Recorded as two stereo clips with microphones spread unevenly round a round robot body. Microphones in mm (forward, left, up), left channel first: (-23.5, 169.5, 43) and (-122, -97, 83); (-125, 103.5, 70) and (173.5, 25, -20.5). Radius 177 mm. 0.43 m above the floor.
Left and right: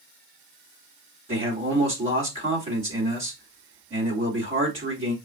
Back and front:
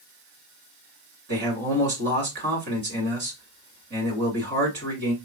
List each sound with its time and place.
1.3 s a man speaking: 40° right, 1.9 m